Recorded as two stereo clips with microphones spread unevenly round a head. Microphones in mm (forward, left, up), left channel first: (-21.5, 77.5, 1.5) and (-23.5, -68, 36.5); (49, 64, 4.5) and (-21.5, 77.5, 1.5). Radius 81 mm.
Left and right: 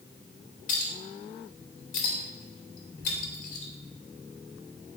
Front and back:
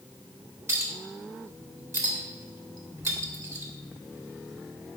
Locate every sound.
0.7 s a clink: 125° left, 2.5 m